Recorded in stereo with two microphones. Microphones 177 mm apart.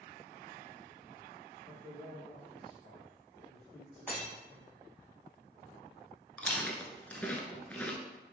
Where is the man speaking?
5° left (ahead or behind), 1.2 m.